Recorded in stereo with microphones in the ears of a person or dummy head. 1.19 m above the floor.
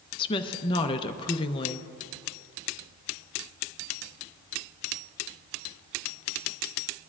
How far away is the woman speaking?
About 0.6 m.